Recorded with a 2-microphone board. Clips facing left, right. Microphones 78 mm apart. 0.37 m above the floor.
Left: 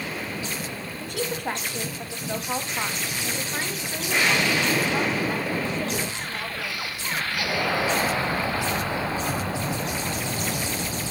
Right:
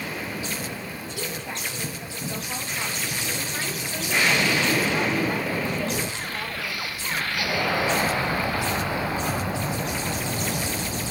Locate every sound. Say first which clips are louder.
1.0 s a woman speaking: left 4 dB; 60° left (ahead or behind), 2.5 m; by 6.9 s 5° left (ahead or behind), 5 m